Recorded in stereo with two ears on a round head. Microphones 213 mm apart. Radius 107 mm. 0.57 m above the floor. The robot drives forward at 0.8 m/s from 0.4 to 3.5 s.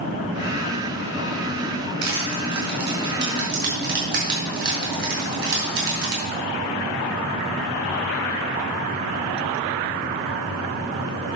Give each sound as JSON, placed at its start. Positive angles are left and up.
{"t": 2.0, "sound": "crushing", "side_deg": -55, "distance_m": 5.5}